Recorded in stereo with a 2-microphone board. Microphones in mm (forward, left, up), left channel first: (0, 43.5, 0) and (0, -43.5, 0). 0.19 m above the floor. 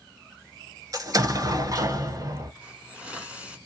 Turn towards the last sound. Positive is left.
turn(degrees=-15)  # may be behind; listen again after turning